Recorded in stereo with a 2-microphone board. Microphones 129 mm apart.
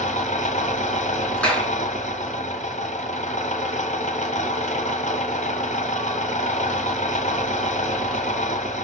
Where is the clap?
10° left (ahead or behind), 4 m.